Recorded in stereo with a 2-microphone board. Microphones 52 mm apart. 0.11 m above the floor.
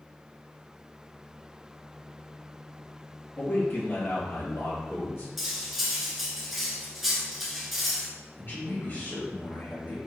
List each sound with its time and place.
3.4 s a man speaking: 45° left (ahead or behind), 2.0 m; by 5.3 s 60° left (ahead or behind), 2.5 m
5.4 s cutlery clinking: 5° right (ahead or behind), 0.7 m
8.4 s a man speaking: 45° left (ahead or behind), 1.9 m